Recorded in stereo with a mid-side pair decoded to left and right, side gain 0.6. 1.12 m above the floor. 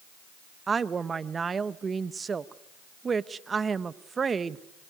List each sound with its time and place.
0.7 s a woman speaking: 30° right, 1.1 m